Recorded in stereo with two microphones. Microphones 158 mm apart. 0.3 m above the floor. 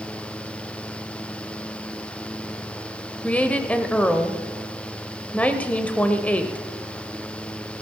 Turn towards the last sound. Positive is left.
turn(degrees=10)  # may be behind; listen again after turning